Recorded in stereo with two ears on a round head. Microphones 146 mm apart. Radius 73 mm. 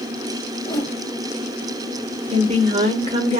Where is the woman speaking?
40° right (ahead or behind), 1.3 m.